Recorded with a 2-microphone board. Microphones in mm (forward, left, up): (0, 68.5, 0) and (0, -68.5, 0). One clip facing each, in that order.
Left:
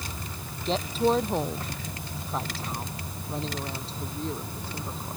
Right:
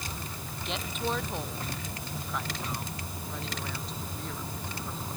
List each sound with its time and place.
0.7 s a woman speaking: 35° left (ahead or behind); by 5.2 s 30° left (ahead or behind)